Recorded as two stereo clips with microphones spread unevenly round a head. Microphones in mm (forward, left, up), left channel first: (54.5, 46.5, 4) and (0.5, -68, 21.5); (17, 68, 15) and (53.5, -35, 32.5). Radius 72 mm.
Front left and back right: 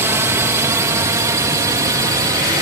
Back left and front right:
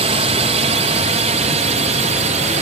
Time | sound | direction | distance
0.0 | a drone | 45° right | ?